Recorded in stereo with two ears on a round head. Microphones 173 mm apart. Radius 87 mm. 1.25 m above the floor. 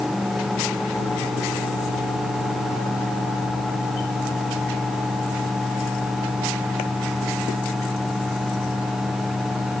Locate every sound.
Only background noise.